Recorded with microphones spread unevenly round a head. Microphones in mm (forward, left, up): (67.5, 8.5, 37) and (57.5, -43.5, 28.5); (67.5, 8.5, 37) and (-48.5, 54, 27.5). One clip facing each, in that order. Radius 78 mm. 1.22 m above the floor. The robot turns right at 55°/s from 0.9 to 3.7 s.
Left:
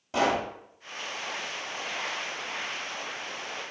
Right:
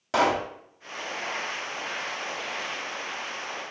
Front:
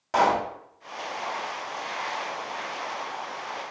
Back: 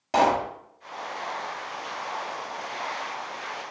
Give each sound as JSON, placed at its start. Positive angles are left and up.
{"t": 0.1, "sound": "a pop", "azimuth_deg": -135, "distance_m": 1.3}